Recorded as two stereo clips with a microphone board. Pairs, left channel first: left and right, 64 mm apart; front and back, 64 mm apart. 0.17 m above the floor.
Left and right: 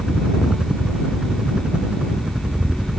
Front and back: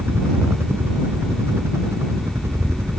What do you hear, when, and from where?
0.0 s a helicopter: 155° right; by 3.0 s 160° right